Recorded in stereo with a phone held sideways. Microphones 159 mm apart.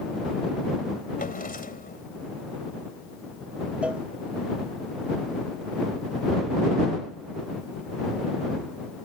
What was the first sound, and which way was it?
A drawer, 65° left (ahead or behind).